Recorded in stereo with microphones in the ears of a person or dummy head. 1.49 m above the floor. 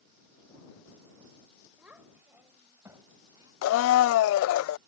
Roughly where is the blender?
Left.